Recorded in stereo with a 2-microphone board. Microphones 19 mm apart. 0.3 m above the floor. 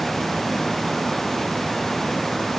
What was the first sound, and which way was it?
Only background noise.